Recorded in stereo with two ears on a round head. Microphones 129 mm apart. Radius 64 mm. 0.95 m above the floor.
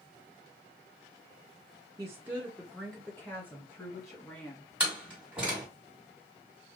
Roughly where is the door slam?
Centre.